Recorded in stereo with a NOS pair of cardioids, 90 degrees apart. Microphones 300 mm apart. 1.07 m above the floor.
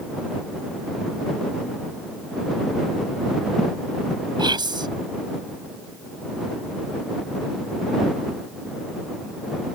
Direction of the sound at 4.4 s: 15° right.